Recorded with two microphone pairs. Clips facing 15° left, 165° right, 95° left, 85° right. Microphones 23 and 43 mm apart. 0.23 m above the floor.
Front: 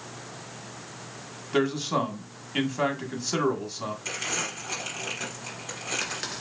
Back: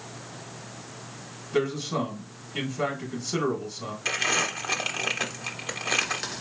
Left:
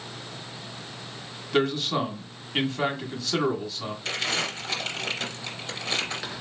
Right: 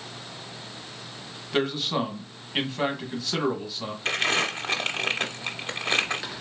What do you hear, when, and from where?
1.5 s a man speaking: 5° right, 1.4 m
4.0 s crumpling: 125° right, 1.1 m